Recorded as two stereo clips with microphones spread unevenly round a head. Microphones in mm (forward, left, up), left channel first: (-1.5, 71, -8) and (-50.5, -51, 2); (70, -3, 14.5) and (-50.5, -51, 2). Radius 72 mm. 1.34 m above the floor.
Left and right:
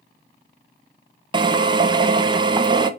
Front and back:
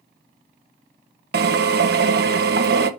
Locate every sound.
1.3 s a drill: 170° right, 1.2 m